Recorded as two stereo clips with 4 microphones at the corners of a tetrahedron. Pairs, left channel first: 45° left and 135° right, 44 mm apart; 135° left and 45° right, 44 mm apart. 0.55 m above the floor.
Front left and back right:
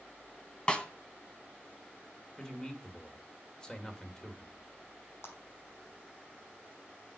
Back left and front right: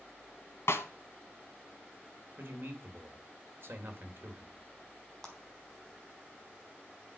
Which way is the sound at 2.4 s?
25° right.